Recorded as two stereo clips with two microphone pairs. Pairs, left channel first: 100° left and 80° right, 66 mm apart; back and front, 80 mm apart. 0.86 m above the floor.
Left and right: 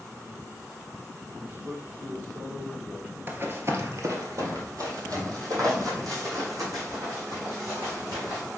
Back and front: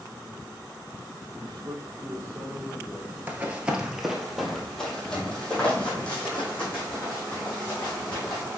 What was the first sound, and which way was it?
A man speaking, 10° right.